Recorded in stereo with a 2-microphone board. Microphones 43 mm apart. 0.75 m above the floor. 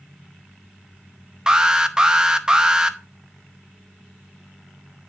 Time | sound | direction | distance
1.5 | an alarm | 20° right (ahead or behind) | 0.6 m